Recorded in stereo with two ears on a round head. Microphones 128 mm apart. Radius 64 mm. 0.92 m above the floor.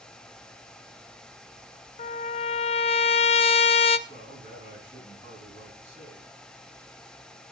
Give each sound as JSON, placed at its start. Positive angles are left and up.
{"t": 2.0, "sound": "a trumpet", "side_deg": 40, "distance_m": 0.6}
{"t": 4.1, "sound": "a man speaking", "side_deg": -45, "distance_m": 7.5}